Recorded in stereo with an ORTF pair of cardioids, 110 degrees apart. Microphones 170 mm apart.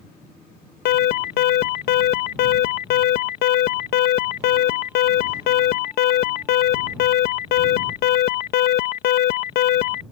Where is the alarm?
70° left.